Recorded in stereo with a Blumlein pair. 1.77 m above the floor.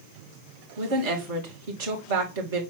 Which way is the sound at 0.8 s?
55° right.